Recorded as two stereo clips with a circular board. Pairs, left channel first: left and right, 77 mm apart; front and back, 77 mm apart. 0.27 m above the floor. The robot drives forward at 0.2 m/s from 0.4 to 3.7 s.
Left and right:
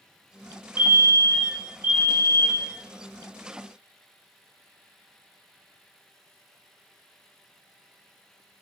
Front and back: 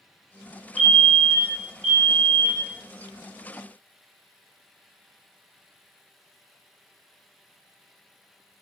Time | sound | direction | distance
0.8 | a fire alarm | 100° right | 1.9 m